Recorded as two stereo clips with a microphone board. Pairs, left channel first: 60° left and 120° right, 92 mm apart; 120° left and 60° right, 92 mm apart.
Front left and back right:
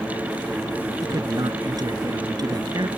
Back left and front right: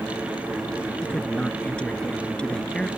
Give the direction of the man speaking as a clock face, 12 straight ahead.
5 o'clock.